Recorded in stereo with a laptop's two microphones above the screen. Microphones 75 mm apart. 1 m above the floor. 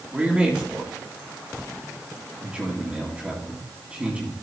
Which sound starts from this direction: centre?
A man speaking, at 0.1 s.